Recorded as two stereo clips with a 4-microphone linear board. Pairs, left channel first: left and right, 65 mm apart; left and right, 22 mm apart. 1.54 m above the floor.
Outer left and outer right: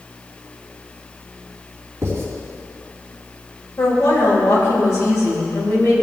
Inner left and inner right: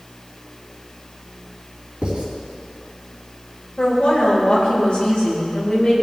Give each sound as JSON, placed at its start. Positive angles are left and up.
{"t": 2.0, "sound": "writing", "side_deg": -45, "distance_m": 3.5}
{"t": 3.8, "sound": "a woman speaking", "side_deg": 50, "distance_m": 3.5}